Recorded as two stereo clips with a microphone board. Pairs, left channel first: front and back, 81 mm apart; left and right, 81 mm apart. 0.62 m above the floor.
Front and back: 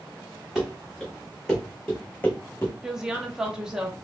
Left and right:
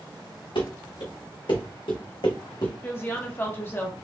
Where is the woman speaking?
105° left, 0.8 m.